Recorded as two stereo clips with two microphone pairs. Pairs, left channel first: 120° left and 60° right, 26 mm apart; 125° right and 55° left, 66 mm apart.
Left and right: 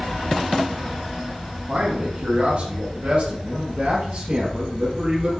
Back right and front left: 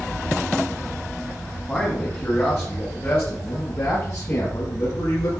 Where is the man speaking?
45° right, 1.7 m; by 5.4 s 105° right, 3 m.